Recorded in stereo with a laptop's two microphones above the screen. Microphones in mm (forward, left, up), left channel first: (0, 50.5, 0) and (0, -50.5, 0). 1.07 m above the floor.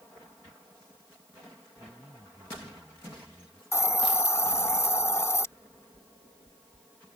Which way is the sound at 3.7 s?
30° left (ahead or behind).